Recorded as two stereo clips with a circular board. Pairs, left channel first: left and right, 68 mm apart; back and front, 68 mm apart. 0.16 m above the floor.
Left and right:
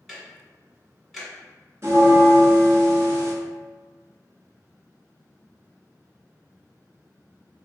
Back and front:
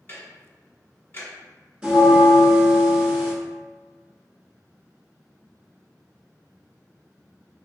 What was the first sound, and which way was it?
Ticking, 175° right.